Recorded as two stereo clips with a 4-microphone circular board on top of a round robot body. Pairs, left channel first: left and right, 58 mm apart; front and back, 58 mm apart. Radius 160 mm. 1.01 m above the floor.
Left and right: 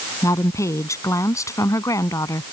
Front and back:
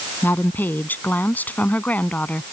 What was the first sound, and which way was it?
A woman speaking, 55° left.